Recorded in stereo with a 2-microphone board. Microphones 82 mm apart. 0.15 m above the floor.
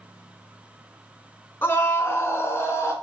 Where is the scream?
25° left (ahead or behind), 1.1 m; by 2.9 s 35° left (ahead or behind), 1.4 m.